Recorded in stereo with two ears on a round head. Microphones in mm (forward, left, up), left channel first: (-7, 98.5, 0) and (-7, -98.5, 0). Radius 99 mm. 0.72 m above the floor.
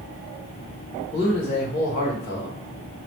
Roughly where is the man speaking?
Left.